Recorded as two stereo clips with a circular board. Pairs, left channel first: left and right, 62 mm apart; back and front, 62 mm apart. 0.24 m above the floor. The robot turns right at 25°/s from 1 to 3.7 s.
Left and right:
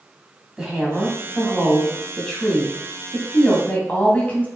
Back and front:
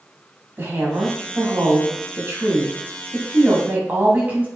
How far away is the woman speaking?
About 1.6 m.